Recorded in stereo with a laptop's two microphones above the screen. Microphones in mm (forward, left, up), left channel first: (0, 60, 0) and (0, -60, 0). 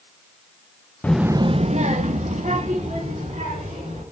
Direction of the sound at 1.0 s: 15° left (ahead or behind).